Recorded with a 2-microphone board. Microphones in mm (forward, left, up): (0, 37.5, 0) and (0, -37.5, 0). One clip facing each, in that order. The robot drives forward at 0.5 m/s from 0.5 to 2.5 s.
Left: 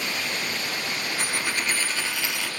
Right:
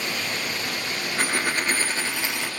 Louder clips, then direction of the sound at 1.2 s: Right 6 dB; 55° right (ahead or behind).